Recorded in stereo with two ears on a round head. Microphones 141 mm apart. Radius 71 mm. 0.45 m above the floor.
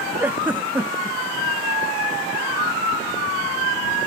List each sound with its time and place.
0.2 s a giggle: 10° right (ahead or behind)